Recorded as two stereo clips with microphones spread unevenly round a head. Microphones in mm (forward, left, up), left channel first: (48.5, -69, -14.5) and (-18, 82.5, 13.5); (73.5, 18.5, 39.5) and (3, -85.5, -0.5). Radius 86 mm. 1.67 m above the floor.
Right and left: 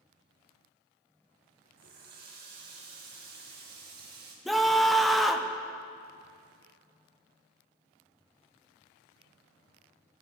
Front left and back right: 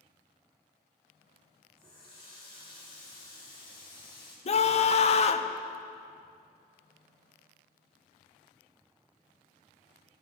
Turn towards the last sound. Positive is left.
turn(degrees=25)